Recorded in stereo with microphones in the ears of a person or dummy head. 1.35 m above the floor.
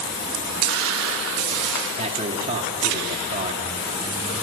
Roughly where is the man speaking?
Right.